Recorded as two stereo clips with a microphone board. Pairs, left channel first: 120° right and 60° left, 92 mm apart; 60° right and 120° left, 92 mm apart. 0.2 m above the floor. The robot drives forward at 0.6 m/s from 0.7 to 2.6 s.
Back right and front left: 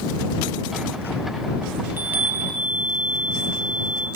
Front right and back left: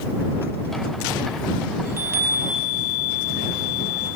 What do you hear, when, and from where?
1.9 s a chime: 90° left, 1.2 m; by 4.1 s 130° left, 1.3 m